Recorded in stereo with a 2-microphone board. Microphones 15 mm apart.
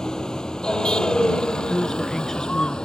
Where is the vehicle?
45° left (ahead or behind); by 2.9 s 60° left (ahead or behind).